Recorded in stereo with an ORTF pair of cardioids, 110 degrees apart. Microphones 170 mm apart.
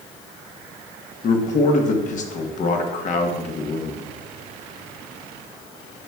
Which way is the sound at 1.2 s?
45° left.